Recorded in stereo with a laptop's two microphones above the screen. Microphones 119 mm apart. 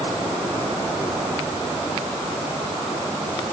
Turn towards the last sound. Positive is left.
No sound to turn to.